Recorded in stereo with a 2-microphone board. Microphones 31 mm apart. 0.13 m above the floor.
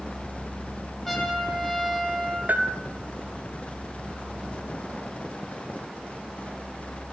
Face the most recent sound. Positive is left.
turn(degrees=-55)  # may be behind; listen again after turning